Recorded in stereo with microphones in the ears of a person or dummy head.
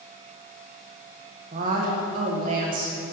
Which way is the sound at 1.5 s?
40° right (ahead or behind).